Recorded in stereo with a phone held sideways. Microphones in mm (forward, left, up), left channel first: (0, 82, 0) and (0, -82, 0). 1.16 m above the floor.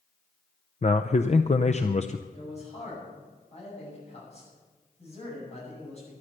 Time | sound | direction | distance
0.8 | a man speaking | 45° left (ahead or behind) | 0.5 m
2.3 | a man speaking | 40° left (ahead or behind) | 7 m